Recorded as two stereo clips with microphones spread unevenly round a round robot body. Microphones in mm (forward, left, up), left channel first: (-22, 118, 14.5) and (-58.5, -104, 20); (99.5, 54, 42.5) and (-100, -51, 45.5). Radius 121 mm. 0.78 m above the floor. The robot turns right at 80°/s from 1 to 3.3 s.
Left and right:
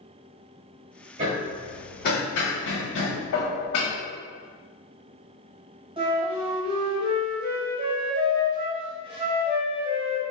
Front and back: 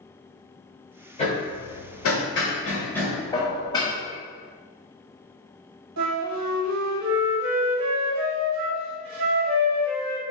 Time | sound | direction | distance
1.2 | hammering | 35° right | 1.3 m
3.3 | dishes clattering | 100° left | 0.9 m
6.0 | a flute | 165° right | 1.3 m